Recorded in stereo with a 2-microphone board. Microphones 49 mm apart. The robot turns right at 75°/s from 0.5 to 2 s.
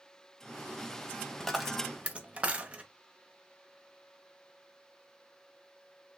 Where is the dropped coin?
10° left (ahead or behind), 0.6 m; by 2.8 s 25° right (ahead or behind), 0.6 m.